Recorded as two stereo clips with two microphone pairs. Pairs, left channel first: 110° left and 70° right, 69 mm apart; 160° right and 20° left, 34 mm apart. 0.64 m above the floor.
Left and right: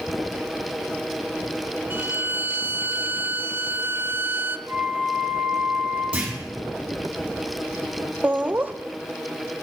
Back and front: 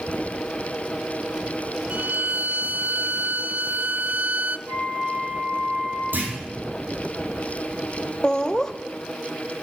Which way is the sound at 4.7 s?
5° left.